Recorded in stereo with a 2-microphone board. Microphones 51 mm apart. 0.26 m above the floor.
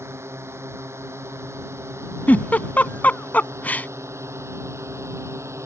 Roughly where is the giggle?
Left.